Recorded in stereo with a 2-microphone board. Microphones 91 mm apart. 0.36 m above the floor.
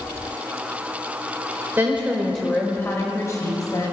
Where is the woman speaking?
25° right (ahead or behind), 1.5 m; by 3.9 s 45° left (ahead or behind), 3 m.